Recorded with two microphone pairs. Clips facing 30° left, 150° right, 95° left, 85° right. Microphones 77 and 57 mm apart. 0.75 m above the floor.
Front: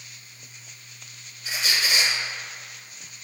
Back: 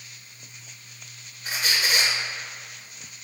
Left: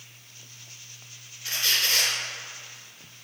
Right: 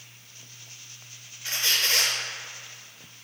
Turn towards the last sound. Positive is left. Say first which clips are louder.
# back 1 dB, even
turn(degrees=-135)